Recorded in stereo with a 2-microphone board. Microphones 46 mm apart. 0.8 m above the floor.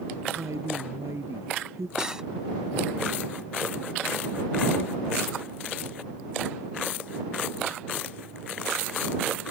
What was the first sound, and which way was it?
A woman speaking, 85° right.